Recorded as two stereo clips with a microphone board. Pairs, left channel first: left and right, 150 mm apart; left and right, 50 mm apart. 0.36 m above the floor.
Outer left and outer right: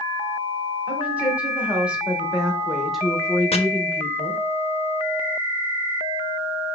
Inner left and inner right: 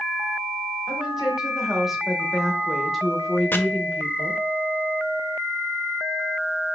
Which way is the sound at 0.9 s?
10° right (ahead or behind).